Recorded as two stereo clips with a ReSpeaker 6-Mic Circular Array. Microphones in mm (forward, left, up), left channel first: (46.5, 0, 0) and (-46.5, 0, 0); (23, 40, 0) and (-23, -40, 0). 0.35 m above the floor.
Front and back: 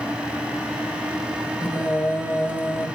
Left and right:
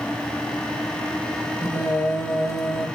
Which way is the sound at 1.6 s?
45° left.